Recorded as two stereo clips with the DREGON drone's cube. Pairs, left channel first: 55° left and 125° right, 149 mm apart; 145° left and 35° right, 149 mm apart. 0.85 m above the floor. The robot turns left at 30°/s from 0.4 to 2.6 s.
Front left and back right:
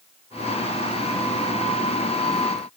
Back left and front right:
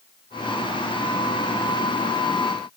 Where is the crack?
No crack in this recording.